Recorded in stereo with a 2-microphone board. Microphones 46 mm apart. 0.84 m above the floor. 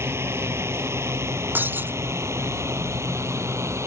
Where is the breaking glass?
45° right (ahead or behind).